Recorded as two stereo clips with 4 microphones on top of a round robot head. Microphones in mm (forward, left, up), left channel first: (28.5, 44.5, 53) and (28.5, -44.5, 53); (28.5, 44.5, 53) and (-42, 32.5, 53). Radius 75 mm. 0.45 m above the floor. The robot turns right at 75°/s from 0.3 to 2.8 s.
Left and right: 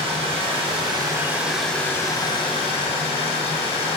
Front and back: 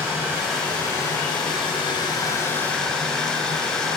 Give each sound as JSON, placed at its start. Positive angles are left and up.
{"t": 0.0, "sound": "running water", "azimuth_deg": -95, "distance_m": 7.5}